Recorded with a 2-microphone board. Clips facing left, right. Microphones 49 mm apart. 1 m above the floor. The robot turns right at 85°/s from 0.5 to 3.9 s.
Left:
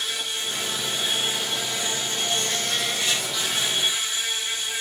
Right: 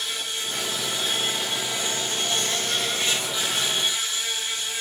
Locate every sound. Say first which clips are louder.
0.0 s an insect: left 1 dB; 95° left, 2.5 m; by 4.8 s 25° left, 2.5 m